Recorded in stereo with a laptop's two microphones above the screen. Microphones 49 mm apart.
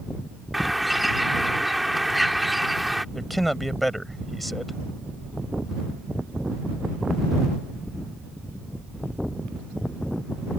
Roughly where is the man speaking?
Centre.